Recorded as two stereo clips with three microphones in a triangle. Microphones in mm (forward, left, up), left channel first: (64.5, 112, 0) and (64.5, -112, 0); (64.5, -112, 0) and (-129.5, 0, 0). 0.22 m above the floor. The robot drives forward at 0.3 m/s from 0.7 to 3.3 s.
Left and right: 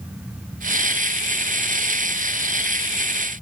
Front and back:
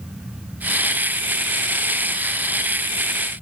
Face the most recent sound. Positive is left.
No sound to turn to.